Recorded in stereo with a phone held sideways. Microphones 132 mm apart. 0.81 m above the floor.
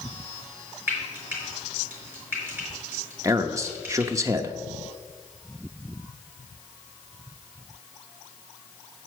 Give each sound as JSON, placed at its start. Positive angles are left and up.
{"t": 0.9, "sound": "frying", "side_deg": -15, "distance_m": 4.5}
{"t": 3.2, "sound": "a man speaking", "side_deg": -20, "distance_m": 0.7}